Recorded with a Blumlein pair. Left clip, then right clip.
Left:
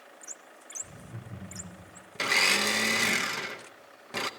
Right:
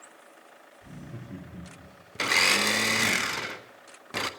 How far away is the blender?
About 0.8 m.